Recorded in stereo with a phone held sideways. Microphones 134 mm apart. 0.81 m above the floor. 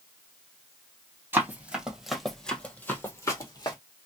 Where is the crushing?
No crushing in this recording.